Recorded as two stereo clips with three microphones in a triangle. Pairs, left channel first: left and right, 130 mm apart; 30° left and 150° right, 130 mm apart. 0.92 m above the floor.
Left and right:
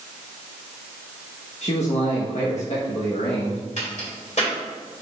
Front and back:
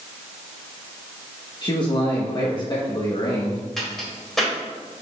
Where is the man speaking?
75° left, 1.2 m.